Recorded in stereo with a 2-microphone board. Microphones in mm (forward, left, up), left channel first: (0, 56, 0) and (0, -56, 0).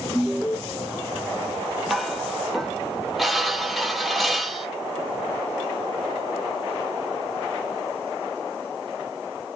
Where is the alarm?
Centre (ahead or behind), 1.4 m.